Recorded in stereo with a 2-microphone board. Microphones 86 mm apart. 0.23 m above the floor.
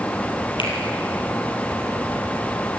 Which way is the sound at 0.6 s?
75° left (ahead or behind).